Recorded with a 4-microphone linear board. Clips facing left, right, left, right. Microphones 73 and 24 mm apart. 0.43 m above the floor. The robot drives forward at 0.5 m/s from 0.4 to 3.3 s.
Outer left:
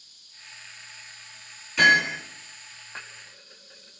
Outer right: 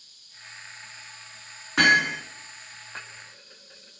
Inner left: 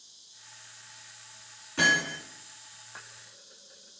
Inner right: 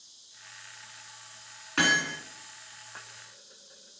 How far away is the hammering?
About 2 m.